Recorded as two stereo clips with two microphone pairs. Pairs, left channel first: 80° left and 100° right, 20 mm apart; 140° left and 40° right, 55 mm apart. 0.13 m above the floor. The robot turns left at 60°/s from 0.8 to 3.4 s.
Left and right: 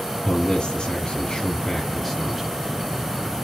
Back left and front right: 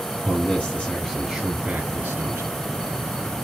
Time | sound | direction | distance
0.2 | a man speaking | 80° left | 2.5 m